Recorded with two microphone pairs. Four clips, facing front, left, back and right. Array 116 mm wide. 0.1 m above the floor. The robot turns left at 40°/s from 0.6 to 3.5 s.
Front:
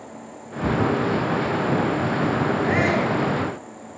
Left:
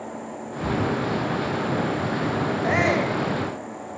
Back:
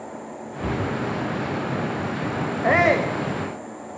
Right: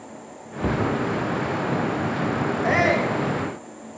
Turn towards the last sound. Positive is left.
turn(degrees=155)